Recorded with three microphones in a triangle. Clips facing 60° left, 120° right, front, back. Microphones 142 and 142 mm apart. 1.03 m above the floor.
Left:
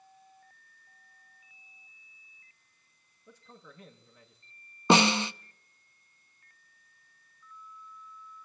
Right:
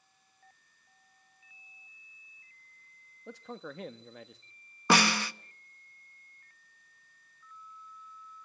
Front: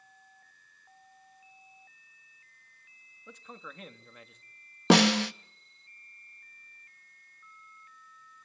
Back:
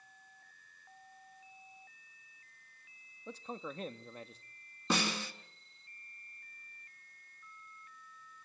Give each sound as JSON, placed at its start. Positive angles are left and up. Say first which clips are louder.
{"t": 3.3, "sound": "a man speaking", "louder": "right 11 dB, back 5 dB", "azimuth_deg": -125, "distance_m": 1.3}
{"t": 4.9, "sound": "a snare drum", "louder": "left 4 dB, front 13 dB", "azimuth_deg": -10, "distance_m": 0.7}